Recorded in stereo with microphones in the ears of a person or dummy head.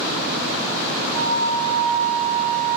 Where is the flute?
20° left (ahead or behind), 1.4 m.